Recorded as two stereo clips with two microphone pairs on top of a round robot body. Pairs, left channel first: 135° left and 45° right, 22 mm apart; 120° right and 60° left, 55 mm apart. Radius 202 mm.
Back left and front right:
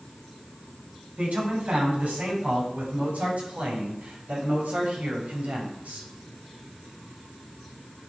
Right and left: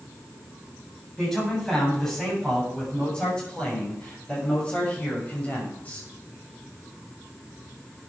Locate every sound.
1.2 s a man speaking: 40° right, 8.5 m; by 6.1 s 55° right, 6.5 m